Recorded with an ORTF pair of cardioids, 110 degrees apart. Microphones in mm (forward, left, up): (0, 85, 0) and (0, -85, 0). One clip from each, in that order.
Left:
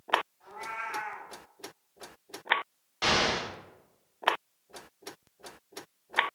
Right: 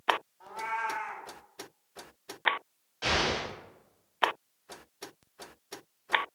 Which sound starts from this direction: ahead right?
A cat meowing, at 0.4 s.